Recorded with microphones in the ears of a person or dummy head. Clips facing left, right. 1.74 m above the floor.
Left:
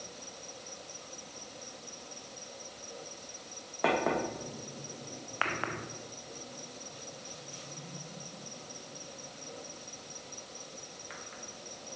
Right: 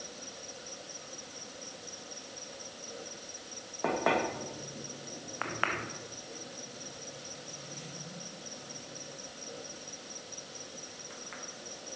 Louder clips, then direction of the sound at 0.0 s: Right 1 dB; 10° right (ahead or behind).